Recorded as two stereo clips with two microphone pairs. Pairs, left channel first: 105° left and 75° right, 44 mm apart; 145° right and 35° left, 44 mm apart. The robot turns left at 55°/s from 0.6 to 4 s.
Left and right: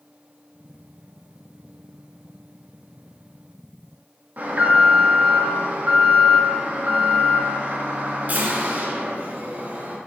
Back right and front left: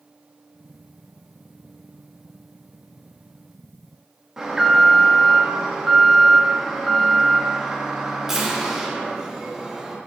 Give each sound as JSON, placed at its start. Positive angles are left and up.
{"t": 4.4, "sound": "an alarm", "azimuth_deg": -40, "distance_m": 0.8}